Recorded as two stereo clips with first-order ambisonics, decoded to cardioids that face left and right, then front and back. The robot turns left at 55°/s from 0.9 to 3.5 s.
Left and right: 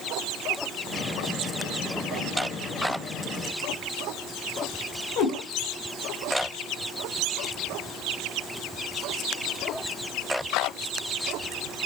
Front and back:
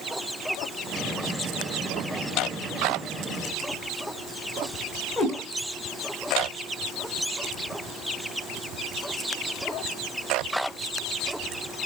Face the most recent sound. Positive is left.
turn(degrees=65)